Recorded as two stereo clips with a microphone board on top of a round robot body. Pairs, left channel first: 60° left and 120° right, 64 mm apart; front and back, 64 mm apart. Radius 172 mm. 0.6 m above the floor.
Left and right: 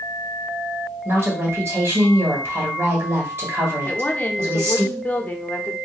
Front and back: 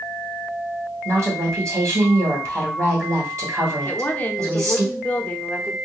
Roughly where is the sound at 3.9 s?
Ahead left.